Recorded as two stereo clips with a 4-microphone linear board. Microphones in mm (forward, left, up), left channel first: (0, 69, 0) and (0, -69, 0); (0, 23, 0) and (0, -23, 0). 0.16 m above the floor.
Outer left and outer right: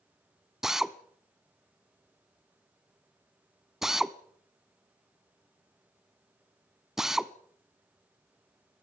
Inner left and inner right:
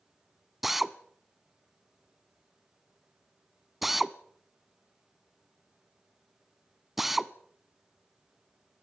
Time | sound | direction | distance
0.6 | a drill | 5° right (ahead or behind) | 0.7 m